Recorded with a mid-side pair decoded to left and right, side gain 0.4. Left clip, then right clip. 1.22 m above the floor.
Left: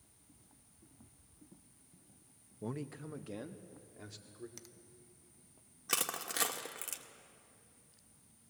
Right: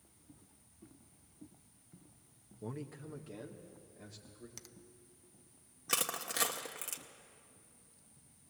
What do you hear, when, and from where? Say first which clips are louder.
2.6 s a man speaking: left 2 dB; 30° left, 1.0 m; by 4.5 s 50° left, 3.5 m
4.6 s a finger snap: right 1 dB; 15° right, 0.7 m
5.9 s crushing: right 1 dB; 5° left, 1.8 m